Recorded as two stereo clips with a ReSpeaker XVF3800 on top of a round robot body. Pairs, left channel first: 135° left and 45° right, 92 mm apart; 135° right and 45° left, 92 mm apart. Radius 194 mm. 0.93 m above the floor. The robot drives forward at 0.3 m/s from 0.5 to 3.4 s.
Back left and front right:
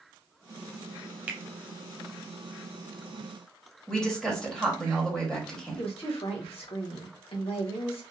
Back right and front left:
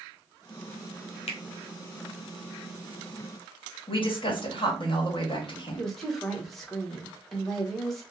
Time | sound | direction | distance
1.3 | a finger snap | 120° right | 0.5 m
3.9 | a woman speaking | 145° right | 1.6 m
5.8 | a woman speaking | 135° left | 1.3 m